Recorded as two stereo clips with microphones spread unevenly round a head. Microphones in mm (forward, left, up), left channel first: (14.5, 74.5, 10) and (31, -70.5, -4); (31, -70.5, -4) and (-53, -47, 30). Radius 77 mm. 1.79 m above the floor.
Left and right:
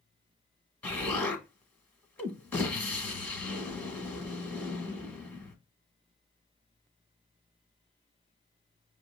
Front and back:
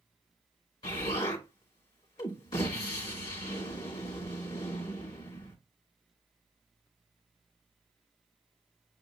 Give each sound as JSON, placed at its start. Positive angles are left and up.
{"t": 0.8, "sound": "an explosion", "azimuth_deg": 40, "distance_m": 1.3}